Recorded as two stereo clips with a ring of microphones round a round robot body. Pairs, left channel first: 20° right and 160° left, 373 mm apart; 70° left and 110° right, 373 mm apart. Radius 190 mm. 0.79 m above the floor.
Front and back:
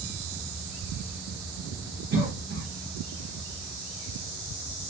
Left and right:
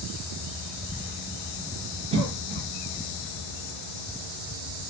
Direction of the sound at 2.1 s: 170° right.